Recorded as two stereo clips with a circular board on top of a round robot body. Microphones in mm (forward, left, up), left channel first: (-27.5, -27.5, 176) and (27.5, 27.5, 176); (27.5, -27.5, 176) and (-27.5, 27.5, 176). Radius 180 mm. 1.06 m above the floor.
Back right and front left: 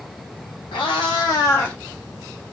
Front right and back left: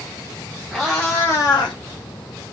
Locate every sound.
0.7 s a cat meowing: 135° right, 0.8 m; by 1.8 s 55° right, 0.5 m